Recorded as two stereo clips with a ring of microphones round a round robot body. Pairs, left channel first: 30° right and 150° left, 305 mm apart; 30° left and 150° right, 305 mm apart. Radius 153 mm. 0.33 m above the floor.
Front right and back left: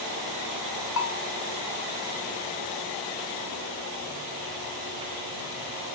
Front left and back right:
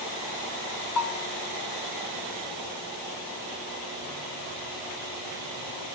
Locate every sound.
1.0 s a bell: 15° left, 0.6 m